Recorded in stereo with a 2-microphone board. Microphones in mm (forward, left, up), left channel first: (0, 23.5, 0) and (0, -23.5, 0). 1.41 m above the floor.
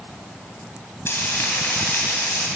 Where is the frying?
60° left (ahead or behind), 2.5 m.